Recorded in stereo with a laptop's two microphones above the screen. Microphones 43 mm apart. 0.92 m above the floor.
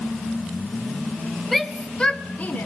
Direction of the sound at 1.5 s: Centre (ahead or behind).